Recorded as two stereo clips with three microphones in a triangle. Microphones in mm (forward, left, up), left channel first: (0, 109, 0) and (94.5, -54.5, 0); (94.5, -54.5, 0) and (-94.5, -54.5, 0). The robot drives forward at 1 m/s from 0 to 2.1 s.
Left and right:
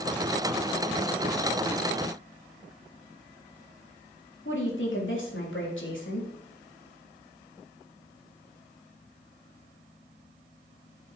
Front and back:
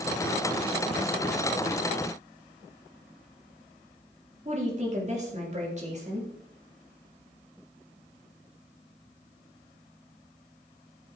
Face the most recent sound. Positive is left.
turn(degrees=125)